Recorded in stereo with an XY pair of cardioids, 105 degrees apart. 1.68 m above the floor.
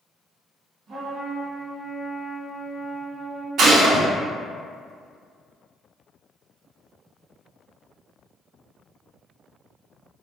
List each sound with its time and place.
0.9 s a trumpet: 60° right, 1.3 m
3.6 s a gunshot: 65° right, 0.7 m